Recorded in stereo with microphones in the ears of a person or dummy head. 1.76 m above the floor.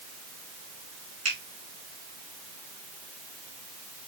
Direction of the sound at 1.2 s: 35° right (ahead or behind).